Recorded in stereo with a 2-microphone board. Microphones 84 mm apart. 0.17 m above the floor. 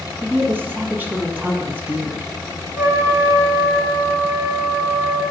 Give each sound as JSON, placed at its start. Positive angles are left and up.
{"t": 0.2, "sound": "a woman speaking", "side_deg": -25, "distance_m": 1.1}
{"t": 2.8, "sound": "a trumpet", "side_deg": -30, "distance_m": 1.2}